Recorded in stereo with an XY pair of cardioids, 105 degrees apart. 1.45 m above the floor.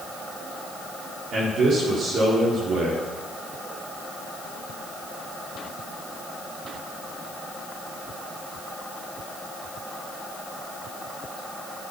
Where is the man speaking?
65° right, 5 m.